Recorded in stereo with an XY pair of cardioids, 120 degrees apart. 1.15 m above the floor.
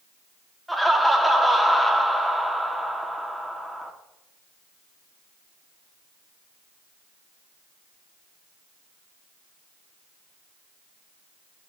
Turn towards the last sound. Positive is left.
turn(degrees=0)